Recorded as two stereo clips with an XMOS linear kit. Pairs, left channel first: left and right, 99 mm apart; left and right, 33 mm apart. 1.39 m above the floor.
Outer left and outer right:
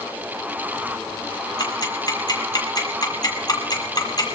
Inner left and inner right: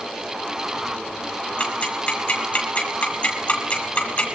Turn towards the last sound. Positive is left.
turn(degrees=45)  # may be behind; listen again after turning